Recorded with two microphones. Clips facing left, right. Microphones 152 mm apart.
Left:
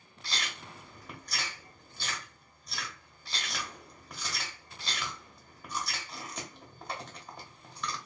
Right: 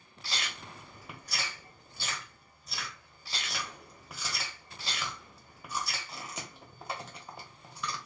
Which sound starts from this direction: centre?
Chewing, at 0.2 s.